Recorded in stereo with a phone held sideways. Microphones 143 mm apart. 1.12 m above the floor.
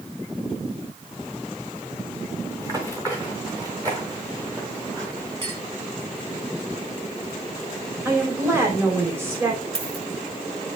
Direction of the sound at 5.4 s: 30° right (ahead or behind).